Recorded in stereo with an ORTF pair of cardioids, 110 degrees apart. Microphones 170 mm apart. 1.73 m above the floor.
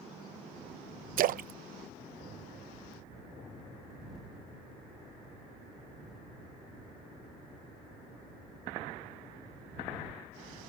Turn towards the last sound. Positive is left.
turn(degrees=-60)